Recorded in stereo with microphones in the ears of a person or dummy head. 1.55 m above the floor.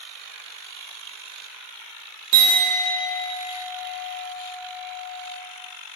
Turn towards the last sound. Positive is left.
turn(degrees=-55)  # may be behind; listen again after turning